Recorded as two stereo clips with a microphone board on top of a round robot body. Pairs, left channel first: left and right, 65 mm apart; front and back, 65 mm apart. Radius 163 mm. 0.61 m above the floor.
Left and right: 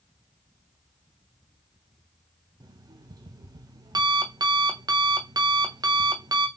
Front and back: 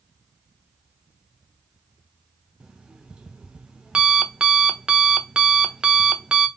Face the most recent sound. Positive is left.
turn(degrees=-100)